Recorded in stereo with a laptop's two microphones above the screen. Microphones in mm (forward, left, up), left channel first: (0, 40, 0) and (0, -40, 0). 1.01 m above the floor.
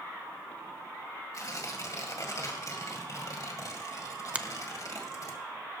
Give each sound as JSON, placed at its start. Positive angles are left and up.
{"t": 1.3, "sound": "tearing paper", "side_deg": 50, "distance_m": 2.0}
{"t": 4.3, "sound": "a finger snap", "side_deg": -15, "distance_m": 0.6}